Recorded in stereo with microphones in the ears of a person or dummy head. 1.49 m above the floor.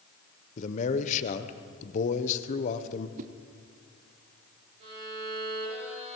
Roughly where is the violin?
Right.